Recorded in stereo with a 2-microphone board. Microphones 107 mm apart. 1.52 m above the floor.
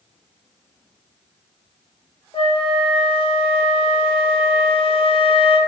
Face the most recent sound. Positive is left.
turn(degrees=55)  # may be behind; listen again after turning